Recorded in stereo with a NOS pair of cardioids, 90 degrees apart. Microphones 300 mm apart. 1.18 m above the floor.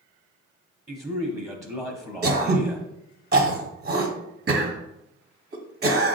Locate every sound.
0.9 s a man speaking: 10° right, 0.9 m
2.2 s throat clearing: 35° right, 1.1 m